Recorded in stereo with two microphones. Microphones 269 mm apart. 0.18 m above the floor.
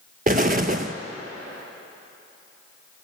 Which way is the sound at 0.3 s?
30° right (ahead or behind).